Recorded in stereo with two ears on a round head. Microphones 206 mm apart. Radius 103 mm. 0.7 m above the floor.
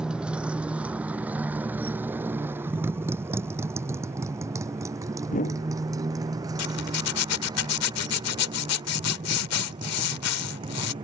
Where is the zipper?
70° left (ahead or behind).